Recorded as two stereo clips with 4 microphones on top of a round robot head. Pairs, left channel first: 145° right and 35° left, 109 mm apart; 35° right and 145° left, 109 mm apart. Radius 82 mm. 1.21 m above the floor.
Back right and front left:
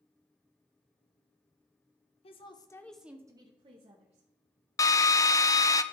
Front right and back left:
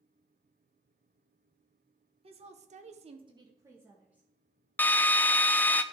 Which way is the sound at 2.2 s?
Straight behind.